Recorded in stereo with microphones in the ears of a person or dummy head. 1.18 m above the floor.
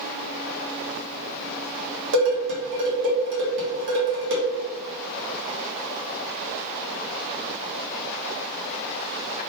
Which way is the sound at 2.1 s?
65° right (ahead or behind).